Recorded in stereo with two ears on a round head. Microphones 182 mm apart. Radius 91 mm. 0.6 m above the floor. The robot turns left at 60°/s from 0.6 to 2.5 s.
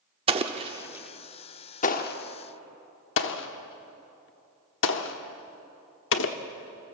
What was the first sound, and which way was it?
An explosion, 25° right (ahead or behind).